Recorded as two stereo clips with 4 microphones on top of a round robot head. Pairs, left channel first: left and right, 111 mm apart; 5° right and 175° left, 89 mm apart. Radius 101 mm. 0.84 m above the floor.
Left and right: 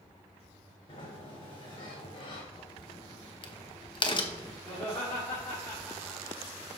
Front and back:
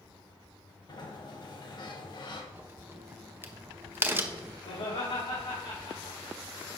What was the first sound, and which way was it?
A sliding door, 35° left.